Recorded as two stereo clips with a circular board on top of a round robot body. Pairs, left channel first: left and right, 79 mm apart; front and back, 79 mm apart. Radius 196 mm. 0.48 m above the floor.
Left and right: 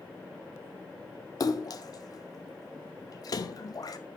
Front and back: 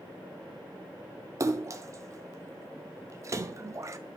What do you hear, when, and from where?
1.4 s a splash: 130° left, 0.7 m